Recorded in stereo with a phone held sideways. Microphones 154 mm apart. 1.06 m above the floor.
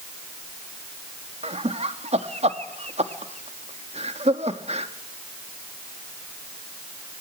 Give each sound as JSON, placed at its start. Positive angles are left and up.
{"t": 1.4, "sound": "laughter", "side_deg": -45, "distance_m": 1.6}